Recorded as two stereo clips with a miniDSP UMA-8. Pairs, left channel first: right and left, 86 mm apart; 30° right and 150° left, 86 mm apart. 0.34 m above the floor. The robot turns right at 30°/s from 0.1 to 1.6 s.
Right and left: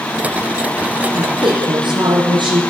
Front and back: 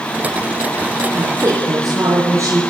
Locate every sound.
1.1 s a woman speaking: 85° left, 7 m; by 2.6 s 100° left, 7 m